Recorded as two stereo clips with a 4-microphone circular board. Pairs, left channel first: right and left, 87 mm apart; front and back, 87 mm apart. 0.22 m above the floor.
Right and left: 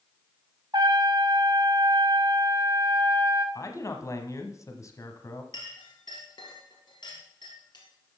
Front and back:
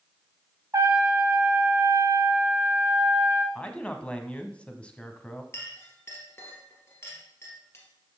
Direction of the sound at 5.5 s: 60° right.